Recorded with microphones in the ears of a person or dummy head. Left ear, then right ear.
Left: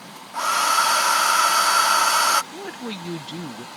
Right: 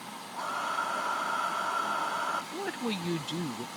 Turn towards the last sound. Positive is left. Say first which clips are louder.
# left 1 dB
turn(degrees=-10)  # may be behind; listen again after turning